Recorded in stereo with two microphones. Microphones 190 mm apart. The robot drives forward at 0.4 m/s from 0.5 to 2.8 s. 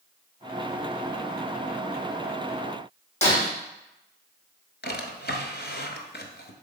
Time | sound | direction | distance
3.2 | breaking glass | 35° left (ahead or behind) | 3.5 m
4.8 | a drawer | 65° left (ahead or behind) | 1.1 m